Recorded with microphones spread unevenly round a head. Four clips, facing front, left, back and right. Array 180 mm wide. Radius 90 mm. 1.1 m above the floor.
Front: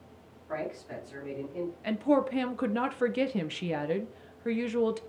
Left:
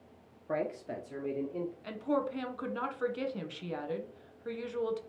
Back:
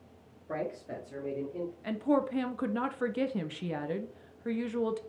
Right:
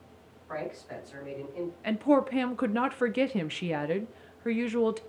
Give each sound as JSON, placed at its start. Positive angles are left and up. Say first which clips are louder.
{"t": 0.5, "sound": "a man speaking", "louder": "left 2 dB, even", "azimuth_deg": 105, "distance_m": 2.0}
{"t": 1.8, "sound": "a woman speaking", "louder": "right 9 dB, front 3 dB", "azimuth_deg": -70, "distance_m": 0.7}